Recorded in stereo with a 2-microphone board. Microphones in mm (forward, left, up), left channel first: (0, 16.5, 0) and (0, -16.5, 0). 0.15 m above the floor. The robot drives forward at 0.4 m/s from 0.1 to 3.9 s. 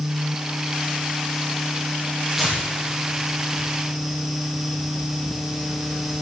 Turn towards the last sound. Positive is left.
turn(degrees=-10)  # may be behind; listen again after turning